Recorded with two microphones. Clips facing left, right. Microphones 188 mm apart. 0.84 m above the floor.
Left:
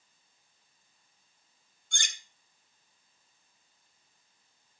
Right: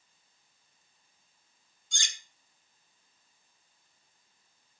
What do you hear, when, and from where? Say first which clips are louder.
1.9 s cutlery clinking: left 2 dB; 65° left (ahead or behind), 0.9 m